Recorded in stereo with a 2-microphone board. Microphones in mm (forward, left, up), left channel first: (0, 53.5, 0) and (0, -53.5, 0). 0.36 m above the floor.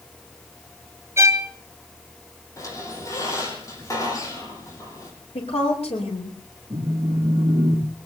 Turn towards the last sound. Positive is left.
turn(degrees=-40)  # may be behind; listen again after turning